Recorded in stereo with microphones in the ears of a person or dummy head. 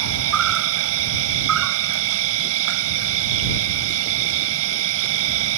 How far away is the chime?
No chime in this recording.